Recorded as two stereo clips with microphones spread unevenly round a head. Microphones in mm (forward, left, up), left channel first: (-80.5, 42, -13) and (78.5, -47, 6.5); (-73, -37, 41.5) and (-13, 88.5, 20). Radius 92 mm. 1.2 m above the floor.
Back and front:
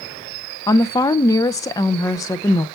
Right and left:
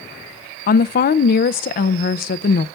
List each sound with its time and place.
0.7 s a woman speaking: 135° right, 0.5 m